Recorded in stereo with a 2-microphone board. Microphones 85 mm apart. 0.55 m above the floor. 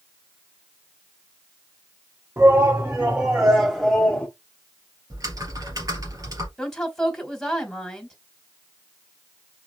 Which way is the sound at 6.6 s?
5° left (ahead or behind).